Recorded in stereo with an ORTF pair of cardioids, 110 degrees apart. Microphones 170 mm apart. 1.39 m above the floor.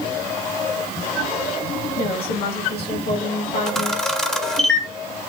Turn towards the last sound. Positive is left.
turn(degrees=5)